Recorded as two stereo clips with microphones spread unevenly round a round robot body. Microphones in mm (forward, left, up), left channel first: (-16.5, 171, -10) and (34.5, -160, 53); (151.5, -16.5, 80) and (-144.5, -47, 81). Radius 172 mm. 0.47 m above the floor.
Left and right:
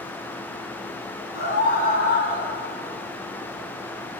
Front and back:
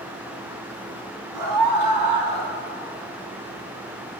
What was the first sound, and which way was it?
A scream, 160° left.